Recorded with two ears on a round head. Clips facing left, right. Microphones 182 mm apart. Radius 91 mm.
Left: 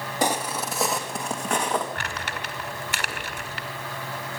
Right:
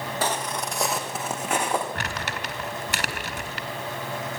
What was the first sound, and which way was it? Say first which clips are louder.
Footsteps: left 4 dB; 15° left (ahead or behind).